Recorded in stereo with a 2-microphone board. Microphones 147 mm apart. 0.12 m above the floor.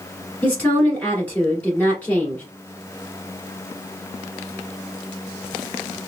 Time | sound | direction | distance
0.4 | a woman speaking | 10° left (ahead or behind) | 1.8 m